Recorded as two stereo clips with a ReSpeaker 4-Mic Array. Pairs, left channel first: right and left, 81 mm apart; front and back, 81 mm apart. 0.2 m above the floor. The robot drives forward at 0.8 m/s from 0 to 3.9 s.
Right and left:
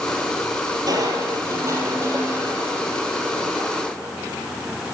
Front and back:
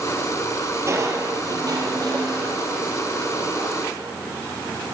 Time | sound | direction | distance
0.9 | crushing | 130° left | 1.9 m